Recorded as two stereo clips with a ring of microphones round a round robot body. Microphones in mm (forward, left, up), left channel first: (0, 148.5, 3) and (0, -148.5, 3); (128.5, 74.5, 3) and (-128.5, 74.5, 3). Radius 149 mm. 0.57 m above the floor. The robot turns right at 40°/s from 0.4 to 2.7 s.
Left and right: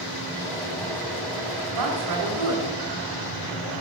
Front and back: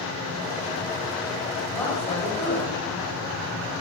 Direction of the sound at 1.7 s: 90° right.